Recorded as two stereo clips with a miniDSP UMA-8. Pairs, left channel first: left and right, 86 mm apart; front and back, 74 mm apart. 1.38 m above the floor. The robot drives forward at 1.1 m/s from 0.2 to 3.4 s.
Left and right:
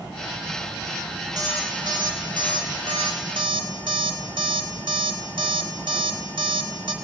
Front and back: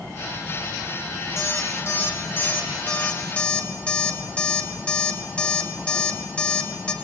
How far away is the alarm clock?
About 5.5 m.